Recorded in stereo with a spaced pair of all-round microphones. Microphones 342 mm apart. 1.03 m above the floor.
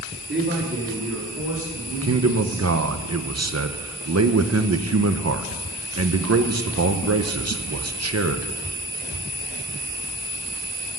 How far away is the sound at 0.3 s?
About 2.5 m.